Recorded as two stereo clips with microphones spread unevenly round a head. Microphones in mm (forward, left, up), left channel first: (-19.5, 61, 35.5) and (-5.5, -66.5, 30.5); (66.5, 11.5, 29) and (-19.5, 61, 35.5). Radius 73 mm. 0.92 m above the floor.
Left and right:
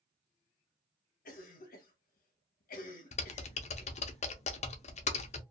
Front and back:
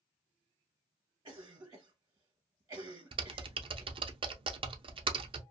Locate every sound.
1.2 s a cough: 105° left, 0.9 m
3.1 s typing on a keyboard: 125° left, 0.6 m